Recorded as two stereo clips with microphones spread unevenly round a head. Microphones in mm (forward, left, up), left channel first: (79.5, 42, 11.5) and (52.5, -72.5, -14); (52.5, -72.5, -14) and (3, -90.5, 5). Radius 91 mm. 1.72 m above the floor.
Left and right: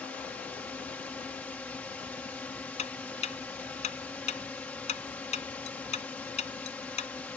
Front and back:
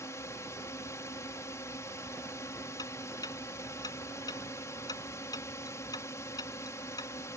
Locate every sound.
0.0 s a drone: straight ahead
2.8 s ticking: 65° left